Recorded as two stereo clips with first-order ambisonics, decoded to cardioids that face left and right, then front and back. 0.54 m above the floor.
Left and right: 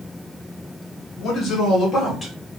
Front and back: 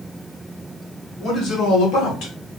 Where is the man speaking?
55° left, 1.2 m; by 2.3 s 15° left, 1.5 m.